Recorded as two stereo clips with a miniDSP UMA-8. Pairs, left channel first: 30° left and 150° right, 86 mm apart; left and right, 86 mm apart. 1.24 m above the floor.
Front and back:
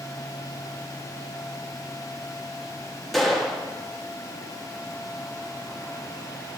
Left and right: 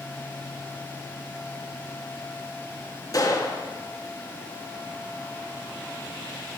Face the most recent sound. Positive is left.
turn(degrees=115)